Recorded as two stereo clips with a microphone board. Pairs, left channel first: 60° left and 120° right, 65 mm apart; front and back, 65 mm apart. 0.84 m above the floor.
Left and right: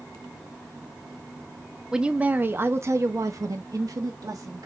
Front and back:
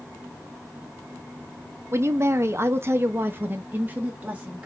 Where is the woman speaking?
165° left, 0.8 m; by 4.7 s 110° right, 1.6 m.